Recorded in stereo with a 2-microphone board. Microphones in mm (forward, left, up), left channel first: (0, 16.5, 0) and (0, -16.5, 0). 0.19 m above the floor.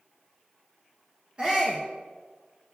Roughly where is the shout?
Right.